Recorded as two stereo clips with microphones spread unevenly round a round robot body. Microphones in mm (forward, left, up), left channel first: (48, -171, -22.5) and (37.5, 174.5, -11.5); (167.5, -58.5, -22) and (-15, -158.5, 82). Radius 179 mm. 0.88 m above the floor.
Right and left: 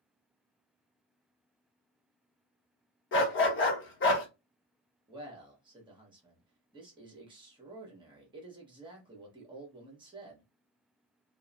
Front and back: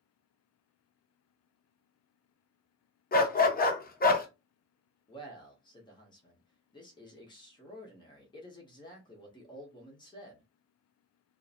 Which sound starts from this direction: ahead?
A man speaking, at 5.1 s.